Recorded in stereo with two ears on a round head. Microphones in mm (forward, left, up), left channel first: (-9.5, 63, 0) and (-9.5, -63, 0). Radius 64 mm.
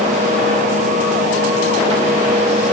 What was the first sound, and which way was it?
Only background noise.